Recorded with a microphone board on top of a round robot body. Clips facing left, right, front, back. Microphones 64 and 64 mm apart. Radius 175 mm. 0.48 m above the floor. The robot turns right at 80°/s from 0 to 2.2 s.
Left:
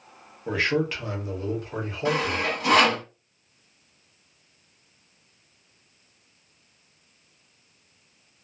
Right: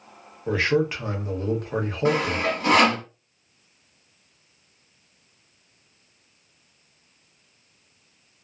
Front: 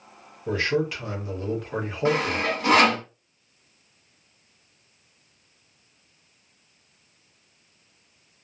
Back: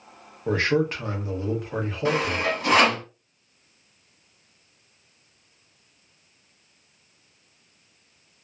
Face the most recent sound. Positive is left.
turn(degrees=-40)